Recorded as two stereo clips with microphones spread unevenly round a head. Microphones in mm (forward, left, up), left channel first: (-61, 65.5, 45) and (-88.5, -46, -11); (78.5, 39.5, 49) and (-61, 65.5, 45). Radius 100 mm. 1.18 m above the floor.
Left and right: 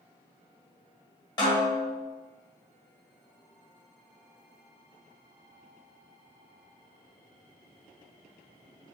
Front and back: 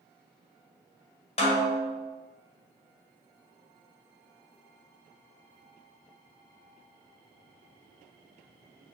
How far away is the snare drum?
About 1.7 m.